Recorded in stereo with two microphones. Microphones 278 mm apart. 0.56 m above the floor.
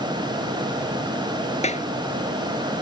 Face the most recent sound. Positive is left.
turn(degrees=25)  # may be behind; listen again after turning